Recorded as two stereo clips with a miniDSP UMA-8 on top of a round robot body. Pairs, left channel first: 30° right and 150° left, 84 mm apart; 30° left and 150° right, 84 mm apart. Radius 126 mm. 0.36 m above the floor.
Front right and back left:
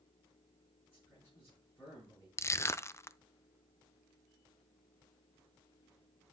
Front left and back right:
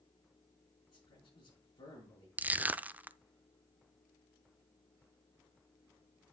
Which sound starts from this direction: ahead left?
A man speaking, at 0.9 s.